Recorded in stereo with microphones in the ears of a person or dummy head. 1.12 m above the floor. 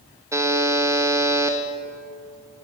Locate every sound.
0.3 s a buzzer: 10° right (ahead or behind), 0.6 m